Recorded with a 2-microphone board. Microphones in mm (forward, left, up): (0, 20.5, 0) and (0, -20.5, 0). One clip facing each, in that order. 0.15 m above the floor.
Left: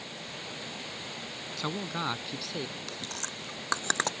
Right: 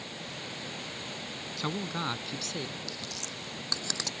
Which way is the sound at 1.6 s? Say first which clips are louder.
Even; centre (ahead or behind).